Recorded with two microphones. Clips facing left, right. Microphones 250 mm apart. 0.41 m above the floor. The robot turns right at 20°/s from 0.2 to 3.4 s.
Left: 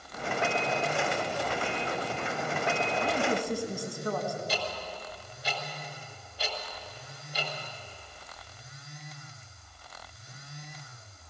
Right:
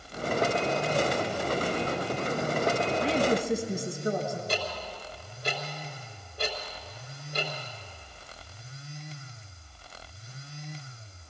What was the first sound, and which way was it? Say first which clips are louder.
A woman speaking: right 4 dB; 30° right (ahead or behind).